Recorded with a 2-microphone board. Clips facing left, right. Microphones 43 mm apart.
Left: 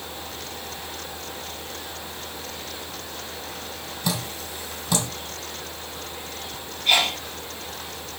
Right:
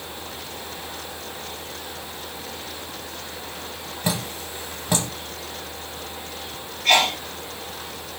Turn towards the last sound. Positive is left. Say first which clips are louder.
# right 3 dB
turn(degrees=-65)  # may be behind; listen again after turning